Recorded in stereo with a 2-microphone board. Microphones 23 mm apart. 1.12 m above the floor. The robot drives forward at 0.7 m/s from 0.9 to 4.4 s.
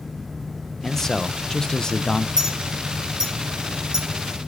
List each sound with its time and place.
0.8 s a man speaking: 20° left (ahead or behind), 1.0 m; by 2.3 s 30° left (ahead or behind), 0.7 m
2.4 s a clink: 35° right (ahead or behind), 5 m; by 4.1 s 30° right (ahead or behind), 6 m